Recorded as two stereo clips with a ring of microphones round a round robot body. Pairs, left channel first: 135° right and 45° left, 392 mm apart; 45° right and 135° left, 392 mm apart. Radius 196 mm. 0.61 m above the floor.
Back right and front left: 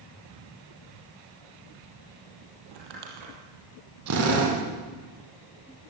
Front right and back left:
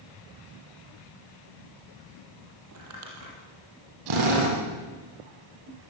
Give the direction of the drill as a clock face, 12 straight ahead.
9 o'clock.